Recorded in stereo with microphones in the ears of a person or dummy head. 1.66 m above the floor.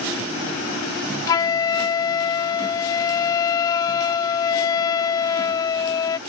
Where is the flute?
20° left (ahead or behind).